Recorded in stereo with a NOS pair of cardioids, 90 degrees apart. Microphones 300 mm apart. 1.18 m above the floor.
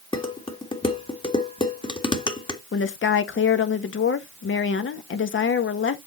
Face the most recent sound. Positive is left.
turn(degrees=40)